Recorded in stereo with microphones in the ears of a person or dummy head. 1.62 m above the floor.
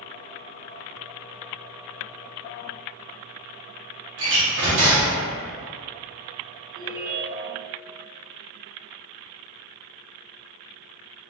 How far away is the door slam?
About 0.7 m.